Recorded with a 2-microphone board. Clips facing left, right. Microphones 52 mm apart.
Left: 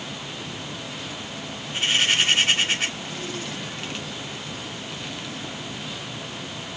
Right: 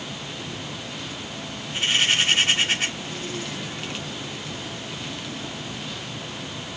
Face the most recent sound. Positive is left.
No sound to turn to.